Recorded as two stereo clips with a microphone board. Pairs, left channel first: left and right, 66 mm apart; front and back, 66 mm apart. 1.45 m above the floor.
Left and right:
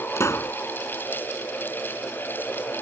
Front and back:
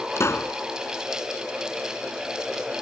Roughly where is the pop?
Ahead left.